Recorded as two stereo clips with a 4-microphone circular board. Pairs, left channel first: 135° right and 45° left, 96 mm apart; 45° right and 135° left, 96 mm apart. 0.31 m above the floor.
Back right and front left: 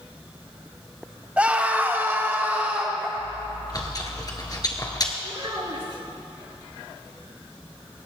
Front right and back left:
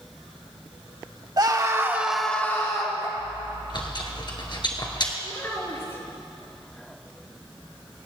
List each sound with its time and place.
1.4 s a scream: 115° left, 1.7 m; by 3.1 s 25° right, 1.8 m
3.2 s chewing: 85° right, 1.9 m
5.2 s a child speaking: 15° left, 4 m